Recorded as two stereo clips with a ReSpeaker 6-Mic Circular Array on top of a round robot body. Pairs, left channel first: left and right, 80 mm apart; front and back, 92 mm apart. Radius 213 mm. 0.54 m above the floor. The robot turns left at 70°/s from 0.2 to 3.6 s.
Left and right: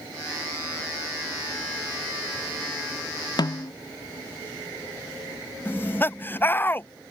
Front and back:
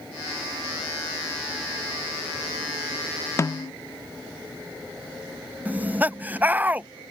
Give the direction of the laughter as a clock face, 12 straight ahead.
8 o'clock.